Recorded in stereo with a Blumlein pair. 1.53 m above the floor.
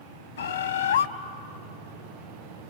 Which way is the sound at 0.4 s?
65° left.